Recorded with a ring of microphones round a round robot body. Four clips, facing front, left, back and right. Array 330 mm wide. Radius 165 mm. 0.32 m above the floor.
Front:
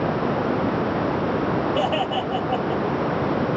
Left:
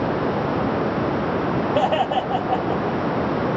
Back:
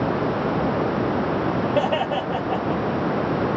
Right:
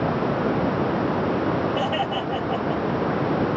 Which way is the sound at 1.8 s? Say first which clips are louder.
Left 5 dB, back 1 dB; 105° left.